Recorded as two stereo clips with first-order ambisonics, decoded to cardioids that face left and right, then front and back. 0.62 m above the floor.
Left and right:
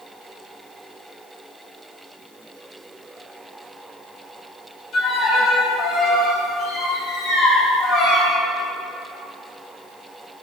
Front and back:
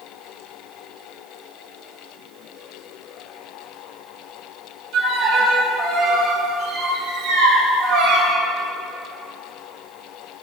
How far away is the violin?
About 4 m.